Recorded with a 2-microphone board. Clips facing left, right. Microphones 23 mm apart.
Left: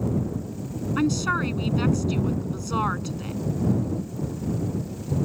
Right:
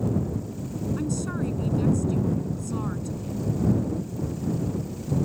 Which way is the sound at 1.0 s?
55° left (ahead or behind).